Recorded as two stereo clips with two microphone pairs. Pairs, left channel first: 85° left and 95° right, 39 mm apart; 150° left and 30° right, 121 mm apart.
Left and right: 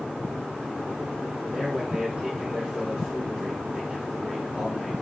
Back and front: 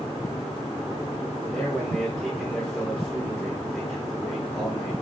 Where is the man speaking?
130° right, 1.3 m.